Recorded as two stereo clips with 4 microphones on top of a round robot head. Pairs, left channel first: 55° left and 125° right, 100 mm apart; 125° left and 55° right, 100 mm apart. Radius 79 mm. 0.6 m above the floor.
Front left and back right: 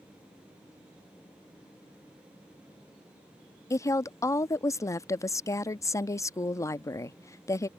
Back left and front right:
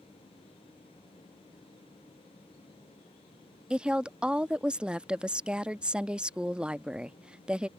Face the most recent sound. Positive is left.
turn(degrees=20)